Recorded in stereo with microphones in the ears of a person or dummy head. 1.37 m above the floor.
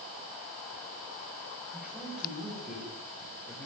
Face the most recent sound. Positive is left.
turn(degrees=5)  # may be behind; listen again after turning